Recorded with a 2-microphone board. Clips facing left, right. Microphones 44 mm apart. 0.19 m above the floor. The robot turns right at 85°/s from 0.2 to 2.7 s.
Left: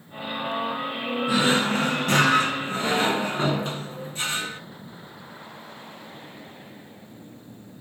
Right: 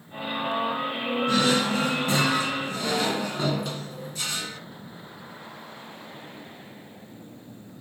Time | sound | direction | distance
1.3 | a drawer | 15° left | 0.9 m